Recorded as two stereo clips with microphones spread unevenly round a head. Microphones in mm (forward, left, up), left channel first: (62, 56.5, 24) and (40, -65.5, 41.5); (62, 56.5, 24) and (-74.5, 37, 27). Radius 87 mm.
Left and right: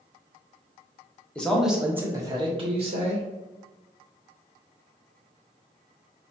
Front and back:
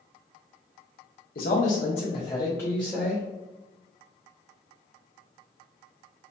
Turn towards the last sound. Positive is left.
turn(degrees=-85)